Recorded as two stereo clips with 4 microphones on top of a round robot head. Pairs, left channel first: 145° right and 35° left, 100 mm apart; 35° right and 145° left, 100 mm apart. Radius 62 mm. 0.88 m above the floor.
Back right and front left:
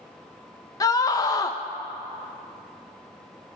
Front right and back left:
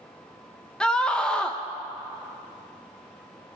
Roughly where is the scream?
Behind right.